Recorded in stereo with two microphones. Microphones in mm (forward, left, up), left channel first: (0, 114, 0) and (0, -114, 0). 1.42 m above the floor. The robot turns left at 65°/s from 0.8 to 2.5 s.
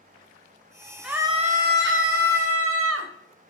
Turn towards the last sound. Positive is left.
turn(degrees=-100)